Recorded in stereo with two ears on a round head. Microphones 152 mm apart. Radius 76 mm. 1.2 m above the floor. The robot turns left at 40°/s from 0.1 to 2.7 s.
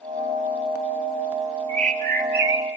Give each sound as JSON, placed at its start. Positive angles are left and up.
{"t": 1.7, "sound": "a bird", "azimuth_deg": -35, "distance_m": 6.0}